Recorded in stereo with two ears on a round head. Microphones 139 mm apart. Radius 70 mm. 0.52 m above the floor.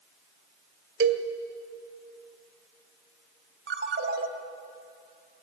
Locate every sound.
1.0 s a cowbell: 70° right (ahead or behind), 1.9 m
3.7 s a ringtone: 70° right (ahead or behind), 2.5 m